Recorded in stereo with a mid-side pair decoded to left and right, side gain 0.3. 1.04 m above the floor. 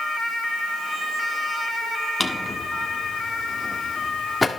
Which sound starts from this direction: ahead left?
A drawer, at 2.2 s.